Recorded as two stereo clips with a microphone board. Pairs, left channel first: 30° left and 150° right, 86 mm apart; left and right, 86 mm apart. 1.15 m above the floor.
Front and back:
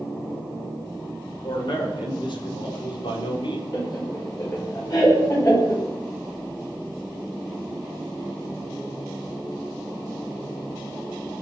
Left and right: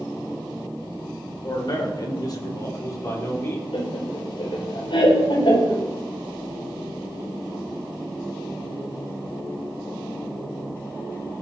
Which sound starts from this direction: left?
Laughter, at 3.7 s.